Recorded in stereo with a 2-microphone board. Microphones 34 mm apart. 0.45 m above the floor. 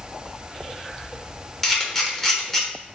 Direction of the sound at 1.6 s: 15° left (ahead or behind).